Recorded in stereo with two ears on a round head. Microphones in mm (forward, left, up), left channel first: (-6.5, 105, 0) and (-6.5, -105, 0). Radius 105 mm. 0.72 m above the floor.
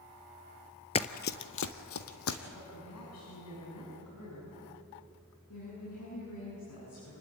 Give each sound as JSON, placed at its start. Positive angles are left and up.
{"t": 0.9, "sound": "running footsteps", "side_deg": 25, "distance_m": 0.8}
{"t": 2.5, "sound": "a woman speaking", "side_deg": 80, "distance_m": 6.0}
{"t": 5.5, "sound": "a woman speaking", "side_deg": 70, "distance_m": 9.0}